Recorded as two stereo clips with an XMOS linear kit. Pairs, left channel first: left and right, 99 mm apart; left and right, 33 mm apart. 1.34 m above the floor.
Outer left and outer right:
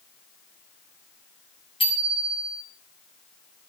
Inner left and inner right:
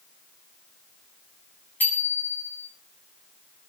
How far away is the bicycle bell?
About 8 m.